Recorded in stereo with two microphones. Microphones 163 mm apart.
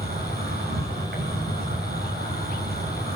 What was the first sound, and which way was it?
An insect, 80° right.